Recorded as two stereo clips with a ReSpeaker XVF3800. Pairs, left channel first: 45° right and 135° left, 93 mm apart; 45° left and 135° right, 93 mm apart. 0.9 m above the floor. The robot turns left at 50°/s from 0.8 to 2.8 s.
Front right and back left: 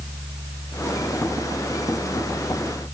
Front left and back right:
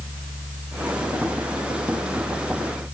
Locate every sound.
Only background noise.